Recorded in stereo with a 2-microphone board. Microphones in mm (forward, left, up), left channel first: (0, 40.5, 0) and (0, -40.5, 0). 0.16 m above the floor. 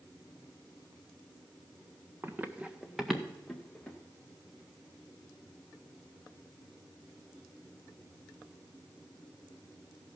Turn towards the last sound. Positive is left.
turn(degrees=10)  # may be behind; listen again after turning